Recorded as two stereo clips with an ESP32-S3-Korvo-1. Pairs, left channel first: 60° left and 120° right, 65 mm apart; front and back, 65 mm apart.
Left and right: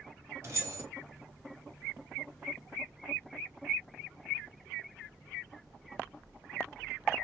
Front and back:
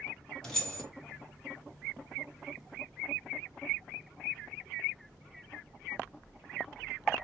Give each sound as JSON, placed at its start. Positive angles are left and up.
{"t": 0.4, "sound": "keys jangling", "azimuth_deg": -85, "distance_m": 0.8}